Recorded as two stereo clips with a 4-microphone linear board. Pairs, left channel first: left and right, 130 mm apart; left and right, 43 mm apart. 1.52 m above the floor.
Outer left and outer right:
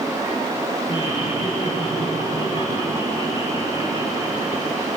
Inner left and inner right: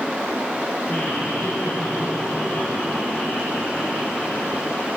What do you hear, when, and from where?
0.9 s laughter: 50° left (ahead or behind), 7 m